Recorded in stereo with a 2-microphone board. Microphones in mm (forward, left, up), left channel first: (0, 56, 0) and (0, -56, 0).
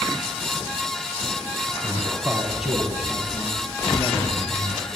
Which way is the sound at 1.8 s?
15° right (ahead or behind).